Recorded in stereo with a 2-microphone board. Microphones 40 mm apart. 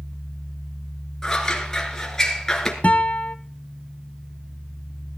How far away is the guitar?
About 0.9 m.